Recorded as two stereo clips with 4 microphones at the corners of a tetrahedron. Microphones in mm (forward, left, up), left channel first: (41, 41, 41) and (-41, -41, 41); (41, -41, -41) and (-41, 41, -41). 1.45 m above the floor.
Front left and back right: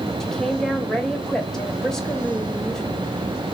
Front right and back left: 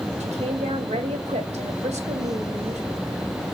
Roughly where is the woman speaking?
Behind left.